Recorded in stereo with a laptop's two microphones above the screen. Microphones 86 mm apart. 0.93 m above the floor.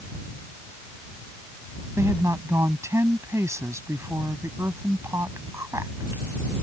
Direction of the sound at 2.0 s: 35° right (ahead or behind).